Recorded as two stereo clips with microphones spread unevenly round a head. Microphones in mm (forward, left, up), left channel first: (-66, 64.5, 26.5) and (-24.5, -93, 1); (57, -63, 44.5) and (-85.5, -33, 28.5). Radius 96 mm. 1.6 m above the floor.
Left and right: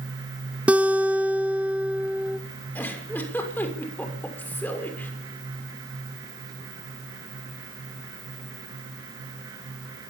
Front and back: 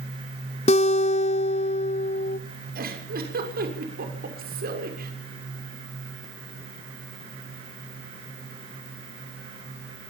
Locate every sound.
0.7 s a guitar: 15° left, 1.0 m
2.8 s a giggle: 175° right, 6.5 m